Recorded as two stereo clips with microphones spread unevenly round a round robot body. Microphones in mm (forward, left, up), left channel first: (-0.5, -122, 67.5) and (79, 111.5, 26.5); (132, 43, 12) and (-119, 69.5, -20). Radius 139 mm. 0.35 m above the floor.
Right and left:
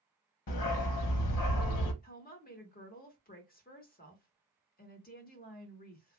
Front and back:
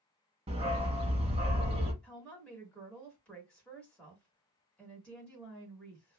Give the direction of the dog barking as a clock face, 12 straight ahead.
4 o'clock.